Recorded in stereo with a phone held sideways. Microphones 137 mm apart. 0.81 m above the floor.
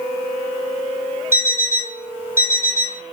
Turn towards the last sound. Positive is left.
turn(degrees=-15)  # may be behind; listen again after turning